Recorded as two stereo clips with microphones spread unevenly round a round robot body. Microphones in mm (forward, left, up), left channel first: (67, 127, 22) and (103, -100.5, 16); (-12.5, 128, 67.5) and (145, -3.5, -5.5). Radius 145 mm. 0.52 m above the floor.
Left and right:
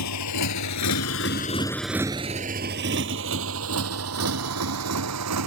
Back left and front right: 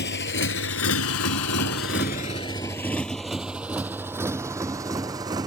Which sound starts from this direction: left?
A motorcycle, at 0.0 s.